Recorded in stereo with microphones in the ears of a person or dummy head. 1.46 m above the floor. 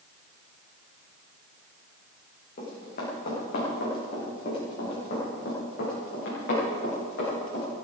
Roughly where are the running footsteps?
Left.